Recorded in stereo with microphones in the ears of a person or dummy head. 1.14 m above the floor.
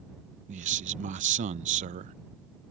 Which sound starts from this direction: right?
A man speaking, at 0.5 s.